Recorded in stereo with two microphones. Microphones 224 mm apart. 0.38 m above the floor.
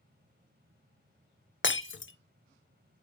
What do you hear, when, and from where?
1.6 s breaking glass: 60° left (ahead or behind), 0.6 m